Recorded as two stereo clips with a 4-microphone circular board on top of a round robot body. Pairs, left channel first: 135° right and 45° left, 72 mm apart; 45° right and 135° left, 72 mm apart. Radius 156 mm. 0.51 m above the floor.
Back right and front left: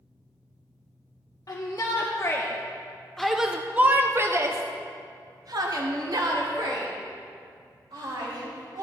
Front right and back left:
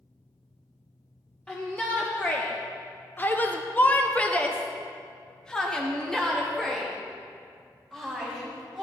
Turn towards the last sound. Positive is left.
turn(degrees=40)